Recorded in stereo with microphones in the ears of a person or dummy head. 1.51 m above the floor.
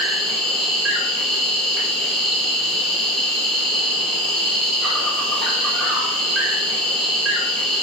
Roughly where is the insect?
Centre.